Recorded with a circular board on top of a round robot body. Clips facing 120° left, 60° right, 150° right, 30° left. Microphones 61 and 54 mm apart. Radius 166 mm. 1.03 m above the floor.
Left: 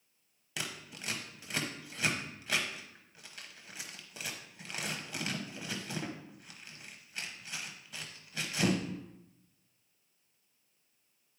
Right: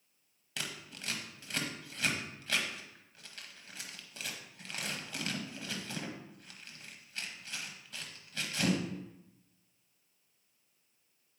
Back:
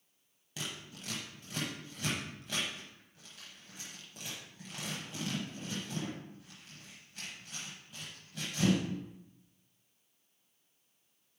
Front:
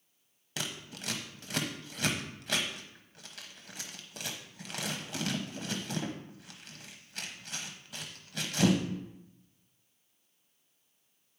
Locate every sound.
0.6 s scissors: 45° left, 0.9 m